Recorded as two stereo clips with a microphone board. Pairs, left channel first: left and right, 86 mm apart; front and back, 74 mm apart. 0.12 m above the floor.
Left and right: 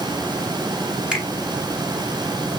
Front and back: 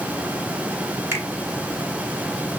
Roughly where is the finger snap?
Behind.